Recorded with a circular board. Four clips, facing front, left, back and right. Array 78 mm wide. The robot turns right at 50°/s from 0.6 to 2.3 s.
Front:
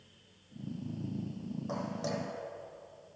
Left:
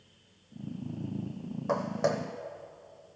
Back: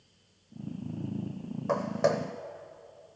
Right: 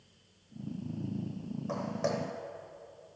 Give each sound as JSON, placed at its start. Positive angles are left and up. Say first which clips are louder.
{"t": 1.7, "sound": "footsteps", "louder": "left 5 dB, back 11 dB", "azimuth_deg": 130, "distance_m": 0.9}